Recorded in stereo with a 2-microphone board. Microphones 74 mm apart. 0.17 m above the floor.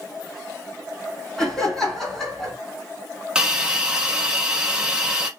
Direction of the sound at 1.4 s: 5° left (ahead or behind).